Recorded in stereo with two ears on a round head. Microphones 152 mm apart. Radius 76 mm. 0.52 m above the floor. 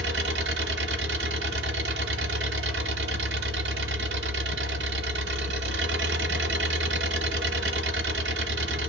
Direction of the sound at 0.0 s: 75° right (ahead or behind).